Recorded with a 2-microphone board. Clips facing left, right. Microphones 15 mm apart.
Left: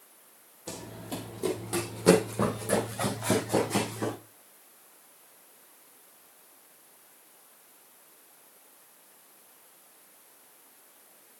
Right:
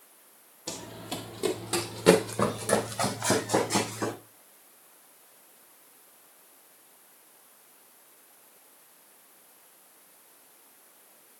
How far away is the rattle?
No rattle in this recording.